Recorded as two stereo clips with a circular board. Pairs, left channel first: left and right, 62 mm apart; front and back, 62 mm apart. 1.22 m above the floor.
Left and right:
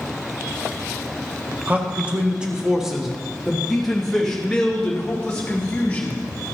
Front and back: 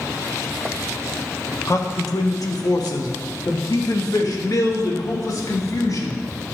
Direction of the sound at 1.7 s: 25° right.